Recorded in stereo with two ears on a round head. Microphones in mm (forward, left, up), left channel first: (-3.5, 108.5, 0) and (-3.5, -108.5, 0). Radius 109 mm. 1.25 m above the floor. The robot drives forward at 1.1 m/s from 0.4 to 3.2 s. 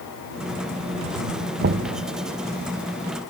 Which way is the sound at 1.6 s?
40° right (ahead or behind).